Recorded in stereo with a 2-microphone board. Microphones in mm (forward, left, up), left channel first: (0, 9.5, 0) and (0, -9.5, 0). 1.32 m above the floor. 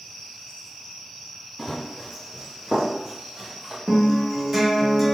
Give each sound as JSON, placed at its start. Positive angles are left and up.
{"t": 1.6, "sound": "running footsteps", "side_deg": 0, "distance_m": 1.7}
{"t": 3.9, "sound": "a guitar", "side_deg": -10, "distance_m": 1.5}